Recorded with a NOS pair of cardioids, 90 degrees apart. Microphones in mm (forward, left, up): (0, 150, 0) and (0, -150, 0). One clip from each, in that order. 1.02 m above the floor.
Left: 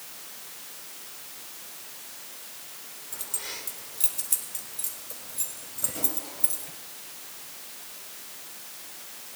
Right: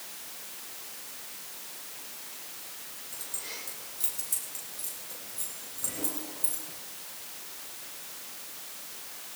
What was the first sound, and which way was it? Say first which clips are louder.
Keys jangling: left 4 dB; 45° left.